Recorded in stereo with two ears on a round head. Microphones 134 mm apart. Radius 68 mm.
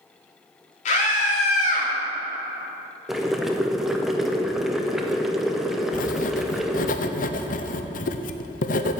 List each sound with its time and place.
0.8 s a scream: 55° left (ahead or behind), 3.5 m; by 1.9 s 60° left (ahead or behind), 2.5 m
3.1 s boiling: centre (ahead or behind), 0.8 m
5.9 s writing: 60° left (ahead or behind), 0.7 m